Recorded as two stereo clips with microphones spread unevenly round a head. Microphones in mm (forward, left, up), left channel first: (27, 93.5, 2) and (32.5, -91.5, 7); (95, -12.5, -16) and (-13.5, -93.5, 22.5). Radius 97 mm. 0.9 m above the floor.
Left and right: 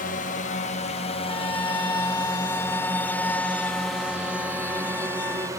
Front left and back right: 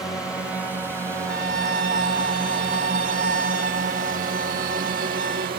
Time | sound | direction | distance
0.0 | a drone | 115° left | ?
1.3 | a violin | 175° left | ?